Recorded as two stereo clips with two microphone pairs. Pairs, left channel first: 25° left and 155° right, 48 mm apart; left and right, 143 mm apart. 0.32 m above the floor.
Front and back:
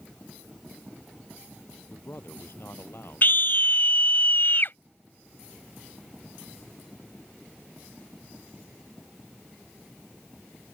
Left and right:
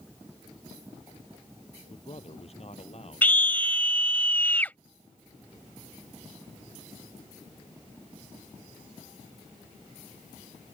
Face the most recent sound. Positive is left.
turn(degrees=15)